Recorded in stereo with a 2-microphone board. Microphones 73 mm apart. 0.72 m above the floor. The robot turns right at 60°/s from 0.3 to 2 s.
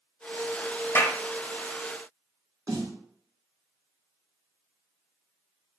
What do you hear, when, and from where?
0.9 s a clap: 30° left (ahead or behind), 0.6 m; by 1.2 s 45° left (ahead or behind), 0.6 m
2.7 s a snare drum: 55° right (ahead or behind), 1.3 m